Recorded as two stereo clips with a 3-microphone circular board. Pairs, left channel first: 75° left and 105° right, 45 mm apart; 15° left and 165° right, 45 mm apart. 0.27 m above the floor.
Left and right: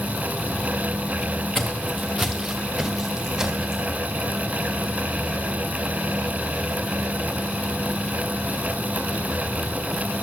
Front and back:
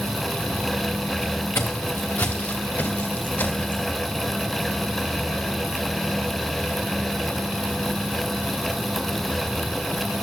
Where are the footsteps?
10° right, 1.2 m; by 3.8 s 25° right, 2.5 m.